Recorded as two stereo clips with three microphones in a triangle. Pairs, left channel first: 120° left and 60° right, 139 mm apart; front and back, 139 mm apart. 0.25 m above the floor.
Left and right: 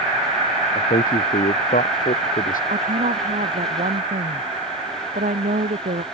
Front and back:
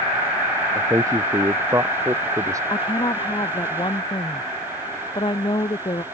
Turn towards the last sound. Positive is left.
turn(degrees=-55)